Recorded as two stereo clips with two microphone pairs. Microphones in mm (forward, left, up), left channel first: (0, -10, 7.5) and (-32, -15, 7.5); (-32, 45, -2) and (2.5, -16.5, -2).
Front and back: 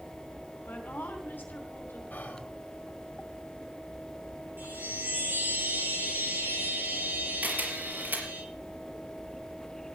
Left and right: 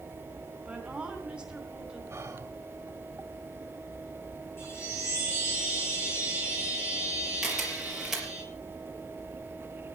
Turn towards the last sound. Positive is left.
turn(degrees=-145)